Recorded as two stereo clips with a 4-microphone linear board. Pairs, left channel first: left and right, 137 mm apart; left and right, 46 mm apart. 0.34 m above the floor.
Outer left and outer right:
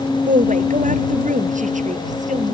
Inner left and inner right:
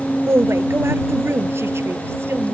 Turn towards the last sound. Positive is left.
turn(degrees=-70)  # may be behind; listen again after turning